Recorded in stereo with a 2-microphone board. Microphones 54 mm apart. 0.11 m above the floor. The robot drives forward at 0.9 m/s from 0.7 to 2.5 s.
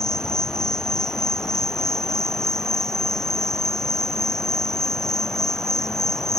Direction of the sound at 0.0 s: 10° left (ahead or behind).